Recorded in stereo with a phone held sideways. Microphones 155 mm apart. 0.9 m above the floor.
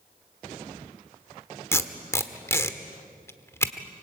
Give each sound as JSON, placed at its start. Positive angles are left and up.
{"t": 1.7, "sound": "tape being pulled", "side_deg": 15, "distance_m": 1.1}